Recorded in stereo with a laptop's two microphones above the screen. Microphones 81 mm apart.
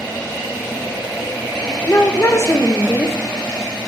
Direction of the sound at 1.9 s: 30° left (ahead or behind).